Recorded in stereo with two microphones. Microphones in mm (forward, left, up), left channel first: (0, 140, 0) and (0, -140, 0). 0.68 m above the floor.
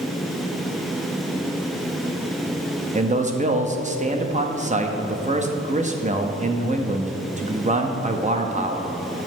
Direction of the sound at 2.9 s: 25° right (ahead or behind).